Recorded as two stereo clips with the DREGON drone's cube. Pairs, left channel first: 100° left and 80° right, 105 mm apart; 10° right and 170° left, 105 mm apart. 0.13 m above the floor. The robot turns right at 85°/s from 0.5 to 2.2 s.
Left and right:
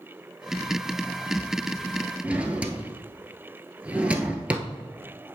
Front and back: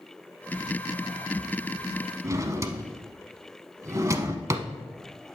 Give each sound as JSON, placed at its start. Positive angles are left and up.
{"t": 2.2, "sound": "a drawer", "azimuth_deg": -150, "distance_m": 0.8}